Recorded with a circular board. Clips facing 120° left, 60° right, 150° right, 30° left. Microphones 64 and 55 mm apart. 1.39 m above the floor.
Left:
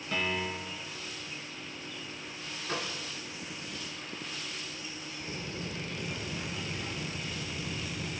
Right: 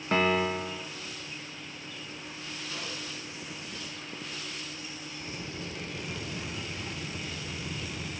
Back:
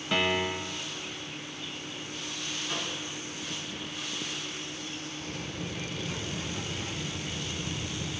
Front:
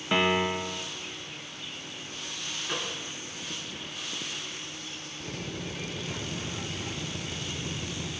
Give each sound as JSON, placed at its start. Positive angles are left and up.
{"t": 0.1, "sound": "a piano", "azimuth_deg": -40, "distance_m": 0.8}
{"t": 2.6, "sound": "a microwave", "azimuth_deg": 85, "distance_m": 3.5}
{"t": 5.2, "sound": "a drill", "azimuth_deg": 25, "distance_m": 6.5}